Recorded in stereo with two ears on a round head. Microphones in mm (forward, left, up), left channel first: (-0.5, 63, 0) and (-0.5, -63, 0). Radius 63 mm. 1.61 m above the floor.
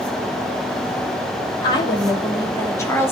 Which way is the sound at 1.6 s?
30° left (ahead or behind).